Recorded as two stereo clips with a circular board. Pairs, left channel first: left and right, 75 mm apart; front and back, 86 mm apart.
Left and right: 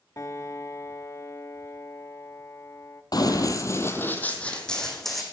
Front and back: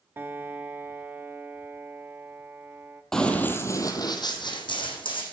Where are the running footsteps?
85° left, 1.3 m; by 5.2 s straight ahead, 2.5 m.